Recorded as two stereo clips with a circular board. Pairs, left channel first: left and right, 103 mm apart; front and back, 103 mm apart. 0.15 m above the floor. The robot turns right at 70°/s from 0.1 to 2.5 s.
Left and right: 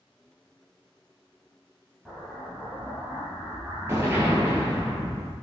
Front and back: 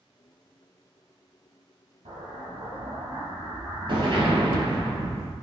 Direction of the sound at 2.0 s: 175° left.